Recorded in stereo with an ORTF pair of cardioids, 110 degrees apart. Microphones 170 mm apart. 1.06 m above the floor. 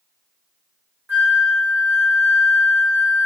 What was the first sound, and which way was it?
A flute, 10° right.